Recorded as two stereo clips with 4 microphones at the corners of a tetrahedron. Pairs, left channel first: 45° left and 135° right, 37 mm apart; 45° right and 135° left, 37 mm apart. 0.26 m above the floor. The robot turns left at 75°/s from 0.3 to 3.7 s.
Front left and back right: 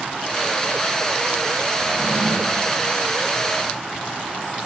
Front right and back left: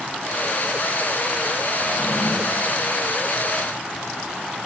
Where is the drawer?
135° right, 9 m; by 2.7 s 160° left, 9 m.